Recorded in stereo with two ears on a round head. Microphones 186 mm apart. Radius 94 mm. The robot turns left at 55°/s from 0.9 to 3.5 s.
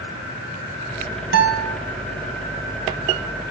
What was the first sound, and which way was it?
A guitar, 50° right (ahead or behind).